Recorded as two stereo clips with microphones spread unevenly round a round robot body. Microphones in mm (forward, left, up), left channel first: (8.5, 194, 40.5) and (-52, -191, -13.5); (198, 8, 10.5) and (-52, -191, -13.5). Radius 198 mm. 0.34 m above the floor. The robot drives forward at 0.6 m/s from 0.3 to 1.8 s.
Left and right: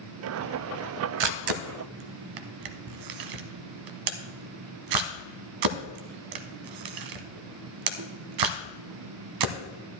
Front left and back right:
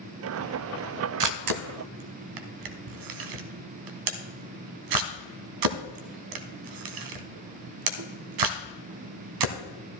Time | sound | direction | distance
1.2 | a camera shutter | 110° right | 0.7 m